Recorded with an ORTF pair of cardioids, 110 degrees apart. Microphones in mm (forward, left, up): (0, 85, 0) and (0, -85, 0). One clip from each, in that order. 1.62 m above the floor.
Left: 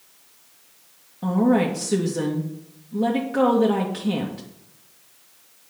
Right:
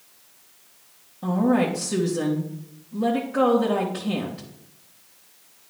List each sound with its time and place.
1.2 s a woman speaking: 25° left, 2 m